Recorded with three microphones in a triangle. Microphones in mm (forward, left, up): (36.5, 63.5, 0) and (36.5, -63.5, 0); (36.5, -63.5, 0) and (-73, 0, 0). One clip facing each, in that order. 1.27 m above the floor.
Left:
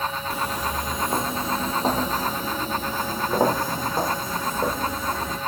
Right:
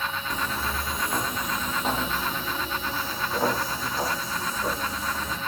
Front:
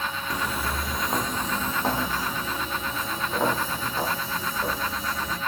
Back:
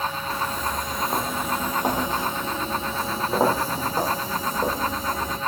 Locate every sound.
0.3 s footsteps: 20° left, 1.3 m; by 5.4 s 115° left, 3 m